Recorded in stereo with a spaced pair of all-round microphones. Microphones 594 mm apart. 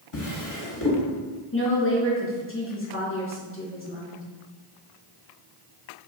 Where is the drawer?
45° left (ahead or behind), 1.0 m.